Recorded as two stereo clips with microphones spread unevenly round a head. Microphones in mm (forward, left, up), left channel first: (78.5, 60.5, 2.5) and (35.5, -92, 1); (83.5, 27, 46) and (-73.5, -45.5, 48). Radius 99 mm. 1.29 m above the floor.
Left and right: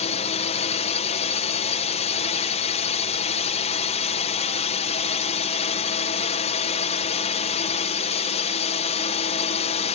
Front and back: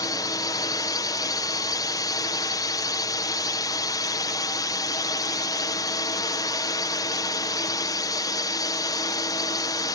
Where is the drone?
85° left.